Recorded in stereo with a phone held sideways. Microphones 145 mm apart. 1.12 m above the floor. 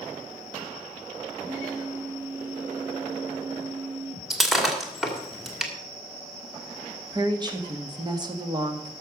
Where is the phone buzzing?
20° right (ahead or behind), 5 m.